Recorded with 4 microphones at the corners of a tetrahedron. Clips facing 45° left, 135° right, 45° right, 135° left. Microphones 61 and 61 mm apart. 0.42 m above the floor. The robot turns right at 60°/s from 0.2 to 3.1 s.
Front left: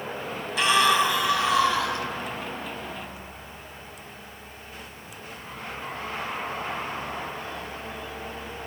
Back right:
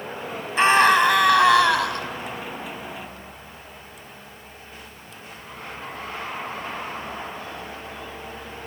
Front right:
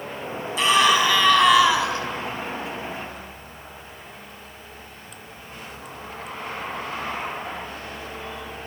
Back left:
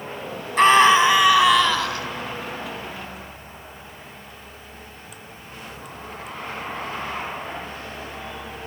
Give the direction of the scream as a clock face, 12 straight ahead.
6 o'clock.